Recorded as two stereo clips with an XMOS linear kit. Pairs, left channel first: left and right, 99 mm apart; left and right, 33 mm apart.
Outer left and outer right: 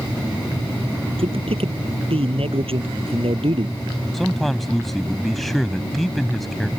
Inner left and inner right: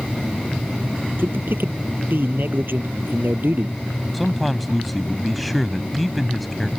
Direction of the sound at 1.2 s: 75° right (ahead or behind).